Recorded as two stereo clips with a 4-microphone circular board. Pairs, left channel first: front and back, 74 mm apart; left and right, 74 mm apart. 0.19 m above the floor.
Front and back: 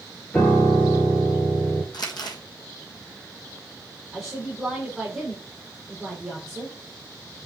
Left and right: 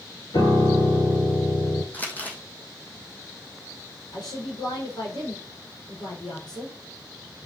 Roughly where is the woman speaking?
Left.